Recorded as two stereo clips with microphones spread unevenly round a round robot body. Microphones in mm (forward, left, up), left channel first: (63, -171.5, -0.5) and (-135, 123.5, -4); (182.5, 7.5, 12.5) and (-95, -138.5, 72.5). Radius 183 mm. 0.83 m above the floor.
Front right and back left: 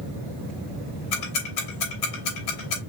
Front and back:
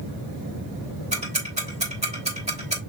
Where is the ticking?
80° right, 3 m.